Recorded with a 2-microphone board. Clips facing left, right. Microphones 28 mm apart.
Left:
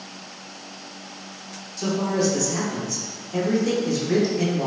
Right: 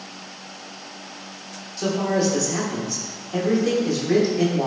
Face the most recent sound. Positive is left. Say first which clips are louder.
# right 1 dB
turn(degrees=-20)  # may be behind; listen again after turning